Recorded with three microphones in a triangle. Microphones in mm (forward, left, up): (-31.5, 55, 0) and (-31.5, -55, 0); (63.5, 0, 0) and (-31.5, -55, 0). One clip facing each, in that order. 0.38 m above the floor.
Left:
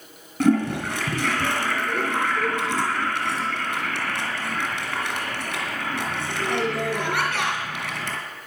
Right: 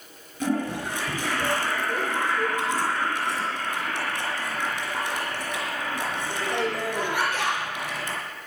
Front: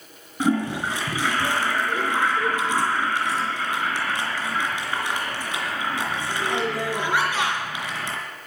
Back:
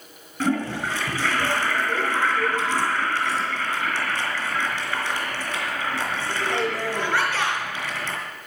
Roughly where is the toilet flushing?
Left.